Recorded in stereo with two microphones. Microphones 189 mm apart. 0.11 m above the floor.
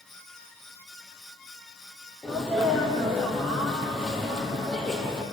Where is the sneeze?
5° left (ahead or behind), 3 m.